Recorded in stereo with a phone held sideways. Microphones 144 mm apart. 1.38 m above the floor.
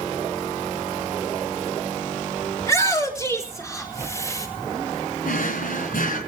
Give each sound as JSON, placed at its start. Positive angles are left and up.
{"t": 2.6, "sound": "a shout", "side_deg": 20, "distance_m": 3.5}
{"t": 5.2, "sound": "a drawer", "side_deg": 70, "distance_m": 4.0}